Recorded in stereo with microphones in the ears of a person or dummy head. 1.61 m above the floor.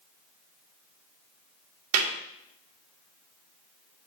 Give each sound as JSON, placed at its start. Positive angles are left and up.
{"t": 1.9, "sound": "a clap", "side_deg": -75, "distance_m": 1.5}